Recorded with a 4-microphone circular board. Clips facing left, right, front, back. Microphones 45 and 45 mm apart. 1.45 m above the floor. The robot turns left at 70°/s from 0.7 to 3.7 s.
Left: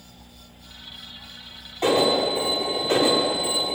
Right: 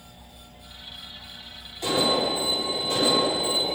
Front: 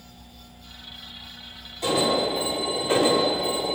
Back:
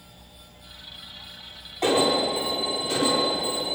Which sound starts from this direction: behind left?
An alarm, at 1.8 s.